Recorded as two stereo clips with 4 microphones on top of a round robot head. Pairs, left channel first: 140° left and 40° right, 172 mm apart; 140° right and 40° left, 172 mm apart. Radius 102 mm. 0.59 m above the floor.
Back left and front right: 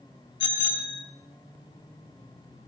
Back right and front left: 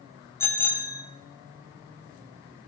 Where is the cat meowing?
I don't hear a cat meowing.